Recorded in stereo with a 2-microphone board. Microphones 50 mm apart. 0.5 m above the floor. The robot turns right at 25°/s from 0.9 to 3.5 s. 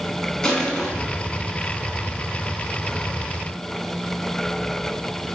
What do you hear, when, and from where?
0.4 s crushing: 10° left (ahead or behind), 0.7 m